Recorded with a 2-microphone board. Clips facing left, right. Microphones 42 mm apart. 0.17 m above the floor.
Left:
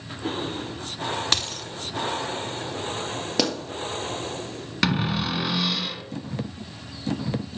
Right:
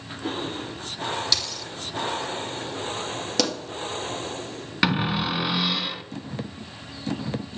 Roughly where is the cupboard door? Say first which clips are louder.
Right 1 dB; centre.